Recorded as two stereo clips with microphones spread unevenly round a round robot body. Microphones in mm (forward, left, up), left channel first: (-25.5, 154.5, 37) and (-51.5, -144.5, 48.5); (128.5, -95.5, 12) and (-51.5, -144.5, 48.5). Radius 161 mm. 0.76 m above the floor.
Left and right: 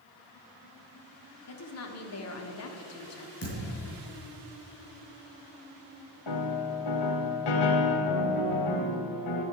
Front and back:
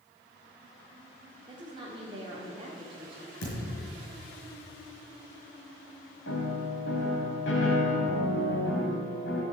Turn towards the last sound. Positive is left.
turn(degrees=70)